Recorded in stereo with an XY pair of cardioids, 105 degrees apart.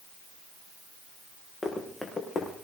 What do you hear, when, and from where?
1.6 s running footsteps: 25° left, 5.5 m